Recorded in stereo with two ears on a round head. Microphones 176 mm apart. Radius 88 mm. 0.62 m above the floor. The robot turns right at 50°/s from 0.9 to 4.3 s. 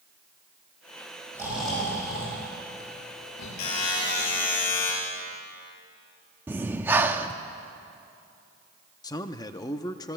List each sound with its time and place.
1.3 s snoring: 15° right (ahead or behind), 9.5 m; by 3.5 s 90° left, 9.5 m
3.6 s a buzzer: 95° left, 7.5 m; by 4.9 s 130° left, 7.5 m
6.5 s breathing: 10° right (ahead or behind), 0.9 m
9.0 s a man speaking: 20° left (ahead or behind), 0.7 m